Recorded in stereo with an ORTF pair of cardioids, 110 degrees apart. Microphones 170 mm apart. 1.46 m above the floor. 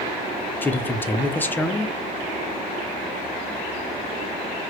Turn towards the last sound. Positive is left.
turn(degrees=10)